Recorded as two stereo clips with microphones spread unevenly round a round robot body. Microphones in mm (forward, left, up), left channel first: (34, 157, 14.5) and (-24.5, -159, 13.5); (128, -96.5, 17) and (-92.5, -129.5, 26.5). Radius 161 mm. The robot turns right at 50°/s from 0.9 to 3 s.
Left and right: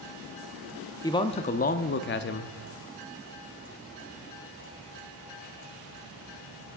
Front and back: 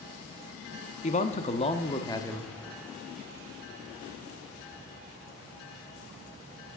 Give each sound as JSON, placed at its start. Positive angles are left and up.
{"t": 1.0, "sound": "a man speaking", "azimuth_deg": 10, "distance_m": 0.6}